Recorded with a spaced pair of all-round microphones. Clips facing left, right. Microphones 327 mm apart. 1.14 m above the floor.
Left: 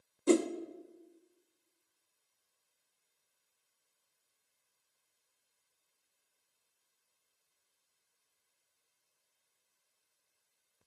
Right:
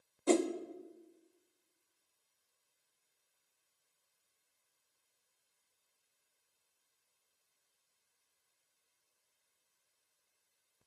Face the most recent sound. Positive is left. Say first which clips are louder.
# left 3 dB
turn(degrees=20)  # may be behind; listen again after turning